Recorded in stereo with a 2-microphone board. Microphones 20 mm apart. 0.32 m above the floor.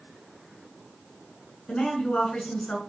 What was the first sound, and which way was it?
A woman speaking, 65° left (ahead or behind).